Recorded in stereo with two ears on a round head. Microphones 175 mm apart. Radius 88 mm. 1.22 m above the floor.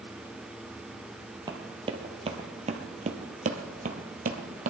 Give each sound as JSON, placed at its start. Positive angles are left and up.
{"t": 1.5, "sound": "running footsteps", "side_deg": -20, "distance_m": 1.6}